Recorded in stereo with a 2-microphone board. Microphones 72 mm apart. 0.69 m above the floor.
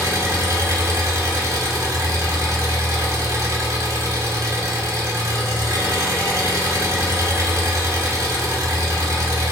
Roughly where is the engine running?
Right.